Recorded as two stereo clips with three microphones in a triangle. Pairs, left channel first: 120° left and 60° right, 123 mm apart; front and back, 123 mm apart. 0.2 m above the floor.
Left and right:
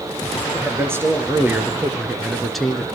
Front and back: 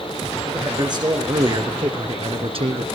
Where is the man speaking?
125° right, 3.5 m; by 2.9 s 155° right, 2 m.